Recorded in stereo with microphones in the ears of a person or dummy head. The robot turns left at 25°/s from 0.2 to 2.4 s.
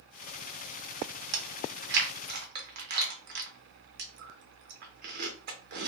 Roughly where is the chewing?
Right.